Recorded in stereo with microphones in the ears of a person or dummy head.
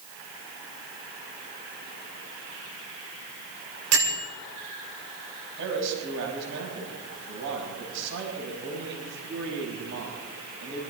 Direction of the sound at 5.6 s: 70° right (ahead or behind).